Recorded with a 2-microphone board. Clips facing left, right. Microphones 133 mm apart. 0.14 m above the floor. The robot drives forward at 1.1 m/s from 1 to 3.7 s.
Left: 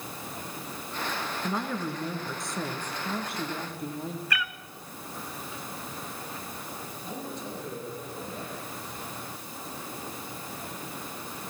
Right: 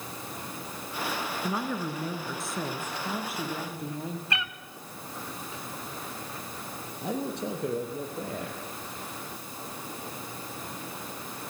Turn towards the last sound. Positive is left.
turn(degrees=-70)  # may be behind; listen again after turning